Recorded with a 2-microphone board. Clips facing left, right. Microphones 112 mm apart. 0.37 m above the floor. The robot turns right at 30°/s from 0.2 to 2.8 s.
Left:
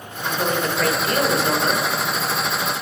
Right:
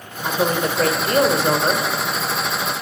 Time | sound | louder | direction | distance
0.2 | a woman speaking | right 2 dB | 135° right | 1.0 m